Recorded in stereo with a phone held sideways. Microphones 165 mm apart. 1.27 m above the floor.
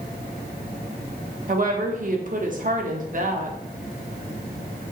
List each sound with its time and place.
1.5 s a woman speaking: 55° right (ahead or behind), 0.8 m